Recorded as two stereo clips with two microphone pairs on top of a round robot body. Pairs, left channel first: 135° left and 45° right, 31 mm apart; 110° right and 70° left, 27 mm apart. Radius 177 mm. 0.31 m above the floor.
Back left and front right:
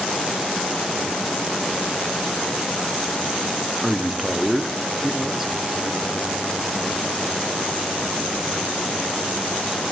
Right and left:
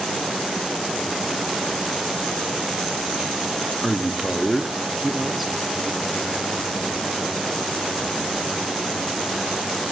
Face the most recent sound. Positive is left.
turn(degrees=75)